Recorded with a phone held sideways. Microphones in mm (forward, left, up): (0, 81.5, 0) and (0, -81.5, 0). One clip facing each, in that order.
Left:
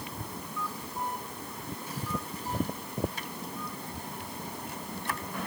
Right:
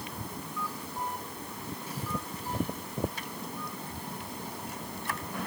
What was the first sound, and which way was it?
Only background noise.